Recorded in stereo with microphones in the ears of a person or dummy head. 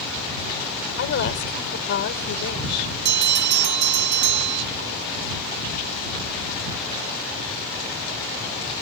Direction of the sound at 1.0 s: 60° left (ahead or behind).